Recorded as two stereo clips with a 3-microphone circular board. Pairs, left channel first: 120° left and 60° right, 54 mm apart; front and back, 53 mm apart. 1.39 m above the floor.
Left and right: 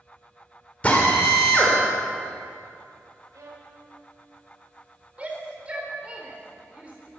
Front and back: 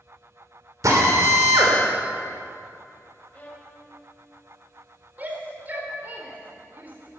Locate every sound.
0.8 s a drill: 175° right, 4 m
3.3 s a violin: 60° right, 3 m
5.2 s a shout: 125° right, 4 m